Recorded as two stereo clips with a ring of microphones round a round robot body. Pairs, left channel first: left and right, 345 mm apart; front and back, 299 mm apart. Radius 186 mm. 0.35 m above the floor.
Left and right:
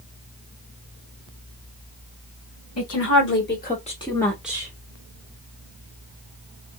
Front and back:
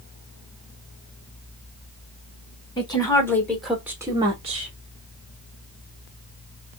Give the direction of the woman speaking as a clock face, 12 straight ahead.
10 o'clock.